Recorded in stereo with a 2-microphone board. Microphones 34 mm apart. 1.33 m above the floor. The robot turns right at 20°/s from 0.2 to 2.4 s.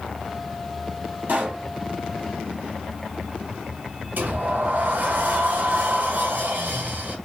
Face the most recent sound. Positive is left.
turn(degrees=-65)  # may be behind; listen again after turning